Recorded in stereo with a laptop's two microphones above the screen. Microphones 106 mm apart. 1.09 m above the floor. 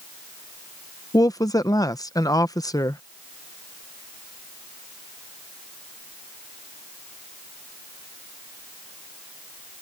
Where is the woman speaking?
35° left (ahead or behind).